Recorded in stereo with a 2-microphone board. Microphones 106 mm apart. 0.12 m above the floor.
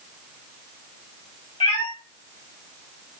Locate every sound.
1.6 s a cat meowing: 55° left (ahead or behind), 1.3 m